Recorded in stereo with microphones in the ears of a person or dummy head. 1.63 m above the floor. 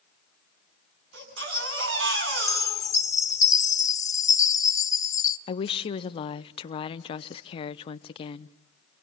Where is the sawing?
No sawing in this recording.